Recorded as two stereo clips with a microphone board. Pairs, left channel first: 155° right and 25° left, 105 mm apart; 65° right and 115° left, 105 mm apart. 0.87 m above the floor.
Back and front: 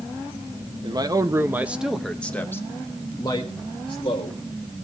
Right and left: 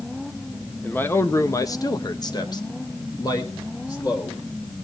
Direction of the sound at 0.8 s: Straight ahead.